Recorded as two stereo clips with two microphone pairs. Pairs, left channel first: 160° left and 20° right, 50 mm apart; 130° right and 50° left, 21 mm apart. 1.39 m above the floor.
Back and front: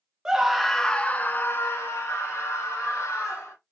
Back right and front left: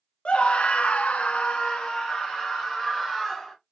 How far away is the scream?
About 0.7 m.